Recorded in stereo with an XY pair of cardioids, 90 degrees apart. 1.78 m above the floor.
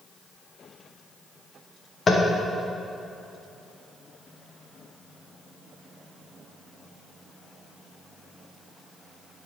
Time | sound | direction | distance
2.1 | tapping | 40° left | 1.4 m